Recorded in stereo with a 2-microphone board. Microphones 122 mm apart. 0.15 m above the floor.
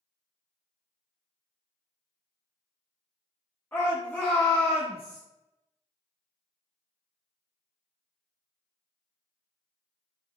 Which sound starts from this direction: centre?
A shout, at 3.7 s.